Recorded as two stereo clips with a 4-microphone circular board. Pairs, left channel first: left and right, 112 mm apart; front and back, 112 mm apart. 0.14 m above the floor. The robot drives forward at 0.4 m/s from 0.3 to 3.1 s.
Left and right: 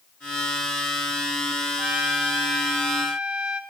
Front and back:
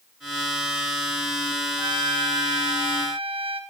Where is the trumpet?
165° right, 0.9 m; by 3.6 s 170° right, 1.3 m.